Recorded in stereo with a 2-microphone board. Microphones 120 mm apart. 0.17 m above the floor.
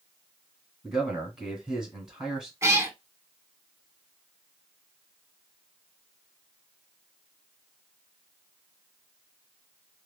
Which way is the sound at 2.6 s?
25° right (ahead or behind).